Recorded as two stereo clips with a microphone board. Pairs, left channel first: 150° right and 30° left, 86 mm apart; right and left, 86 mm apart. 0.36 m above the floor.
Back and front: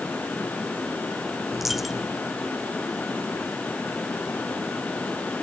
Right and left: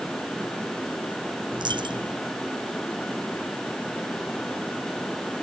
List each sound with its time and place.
1.5 s a dropped coin: 115° left